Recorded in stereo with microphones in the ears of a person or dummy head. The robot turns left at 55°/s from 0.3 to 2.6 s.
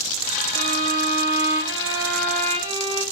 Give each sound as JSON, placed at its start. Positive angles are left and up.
{"t": 0.5, "sound": "a violin", "azimuth_deg": -80, "distance_m": 5.5}